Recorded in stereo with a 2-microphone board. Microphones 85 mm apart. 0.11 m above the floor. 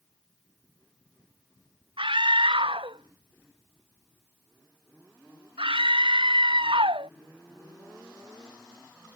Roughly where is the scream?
Right.